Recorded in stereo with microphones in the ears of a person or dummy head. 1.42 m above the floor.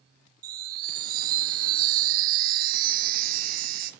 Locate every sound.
0.4 s a chime: 50° right (ahead or behind), 0.7 m